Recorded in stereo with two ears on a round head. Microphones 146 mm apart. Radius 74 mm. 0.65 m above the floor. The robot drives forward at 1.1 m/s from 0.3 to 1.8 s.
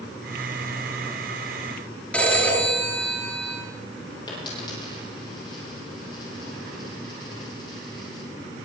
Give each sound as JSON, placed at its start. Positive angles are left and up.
{"t": 2.1, "sound": "a phone ringing", "side_deg": 10, "distance_m": 5.5}
{"t": 4.3, "sound": "a dropped coin", "side_deg": 25, "distance_m": 8.5}